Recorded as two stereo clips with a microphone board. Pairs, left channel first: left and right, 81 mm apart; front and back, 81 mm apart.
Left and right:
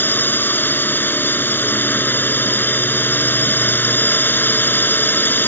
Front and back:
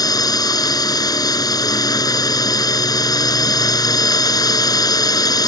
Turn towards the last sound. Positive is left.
turn(degrees=25)